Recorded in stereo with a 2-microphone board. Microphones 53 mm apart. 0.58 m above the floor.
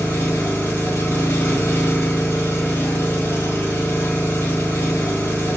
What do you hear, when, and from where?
0.0 s an engine running: 60° left (ahead or behind), 1.1 m